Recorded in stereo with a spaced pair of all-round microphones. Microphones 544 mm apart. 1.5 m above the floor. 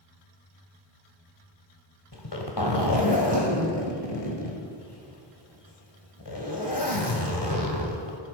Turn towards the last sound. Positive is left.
turn(degrees=45)  # may be behind; listen again after turning